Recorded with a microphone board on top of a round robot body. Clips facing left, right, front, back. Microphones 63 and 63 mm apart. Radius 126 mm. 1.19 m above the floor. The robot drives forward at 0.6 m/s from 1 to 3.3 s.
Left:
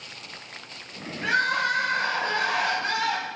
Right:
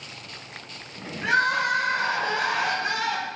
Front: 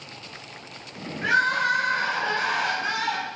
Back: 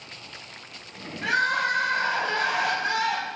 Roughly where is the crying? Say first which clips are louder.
Right 2 dB, front 2 dB; ahead right.